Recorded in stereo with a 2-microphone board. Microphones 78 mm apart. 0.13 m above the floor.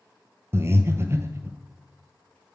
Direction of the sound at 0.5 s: 35° right (ahead or behind).